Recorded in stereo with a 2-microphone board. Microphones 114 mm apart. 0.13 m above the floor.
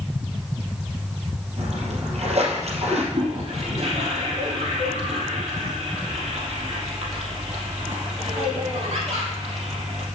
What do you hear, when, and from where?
1.6 s a splash: 65° right (ahead or behind), 3.5 m
3.1 s a toilet flushing: 65° right (ahead or behind), 3.5 m